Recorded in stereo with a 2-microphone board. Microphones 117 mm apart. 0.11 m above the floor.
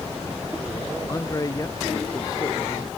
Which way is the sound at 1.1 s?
30° left (ahead or behind).